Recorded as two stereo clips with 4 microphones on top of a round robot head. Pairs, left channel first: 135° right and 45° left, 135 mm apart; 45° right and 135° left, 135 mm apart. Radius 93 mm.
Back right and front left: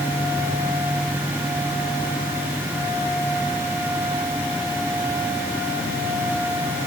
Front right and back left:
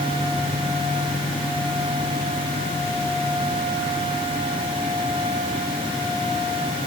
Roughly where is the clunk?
I don't hear a clunk.